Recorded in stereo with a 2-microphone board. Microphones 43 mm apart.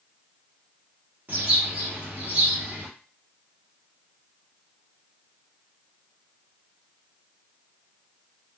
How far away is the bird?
About 1.5 m.